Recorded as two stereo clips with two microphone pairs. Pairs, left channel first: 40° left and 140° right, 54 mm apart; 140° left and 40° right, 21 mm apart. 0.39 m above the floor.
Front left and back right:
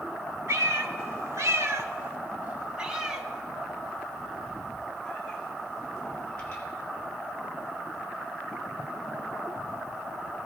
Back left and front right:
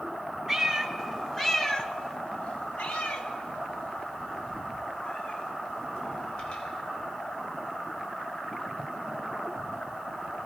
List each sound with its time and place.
0.5 s a cat meowing: 120° right, 1.3 m; by 6.6 s 110° left, 3.5 m